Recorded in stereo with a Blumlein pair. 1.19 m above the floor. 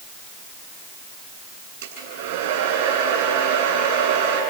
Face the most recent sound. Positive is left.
turn(degrees=-55)